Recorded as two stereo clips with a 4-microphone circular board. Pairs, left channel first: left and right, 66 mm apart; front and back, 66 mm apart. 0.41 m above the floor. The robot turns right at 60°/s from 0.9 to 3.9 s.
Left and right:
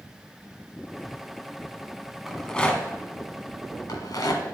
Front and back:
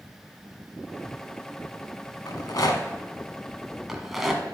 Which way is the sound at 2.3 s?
5° right.